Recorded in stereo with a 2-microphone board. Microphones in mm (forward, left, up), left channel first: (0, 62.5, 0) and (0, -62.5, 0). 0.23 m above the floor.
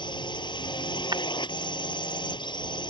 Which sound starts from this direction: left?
A drone, at 0.0 s.